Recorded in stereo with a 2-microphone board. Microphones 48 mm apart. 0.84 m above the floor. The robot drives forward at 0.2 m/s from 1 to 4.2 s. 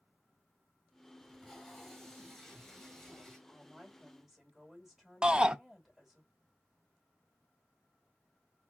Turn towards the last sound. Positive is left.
turn(degrees=-20)  # may be behind; listen again after turning